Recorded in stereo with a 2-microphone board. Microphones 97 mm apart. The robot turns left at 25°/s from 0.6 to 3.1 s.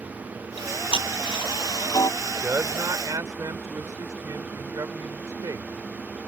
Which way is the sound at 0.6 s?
80° left.